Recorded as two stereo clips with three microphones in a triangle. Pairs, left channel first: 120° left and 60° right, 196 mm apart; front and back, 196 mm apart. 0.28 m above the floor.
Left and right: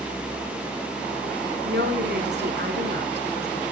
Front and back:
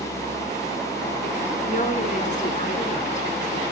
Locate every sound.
1.6 s a woman speaking: 45° right, 2.5 m